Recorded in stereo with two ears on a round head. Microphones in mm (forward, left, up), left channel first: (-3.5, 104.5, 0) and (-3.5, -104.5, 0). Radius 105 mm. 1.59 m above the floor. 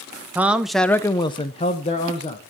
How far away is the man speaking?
About 0.8 m.